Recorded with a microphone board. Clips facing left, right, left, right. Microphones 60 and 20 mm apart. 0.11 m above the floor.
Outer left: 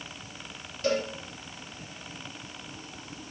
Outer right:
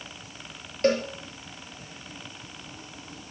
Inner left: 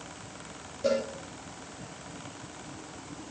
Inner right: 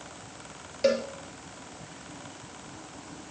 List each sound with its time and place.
0.8 s a cowbell: 50° right (ahead or behind), 3 m